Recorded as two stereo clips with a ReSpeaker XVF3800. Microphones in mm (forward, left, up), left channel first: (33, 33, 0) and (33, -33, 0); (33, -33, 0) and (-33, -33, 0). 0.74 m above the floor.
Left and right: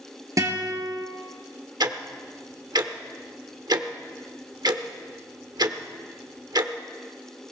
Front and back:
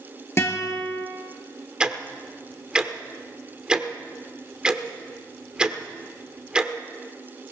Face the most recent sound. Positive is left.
turn(degrees=-100)